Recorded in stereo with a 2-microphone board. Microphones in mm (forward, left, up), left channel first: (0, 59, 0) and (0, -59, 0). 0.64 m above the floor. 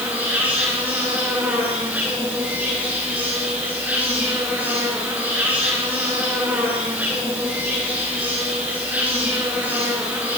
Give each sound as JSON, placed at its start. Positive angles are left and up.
{"t": 0.0, "sound": "an insect", "side_deg": -15, "distance_m": 8.0}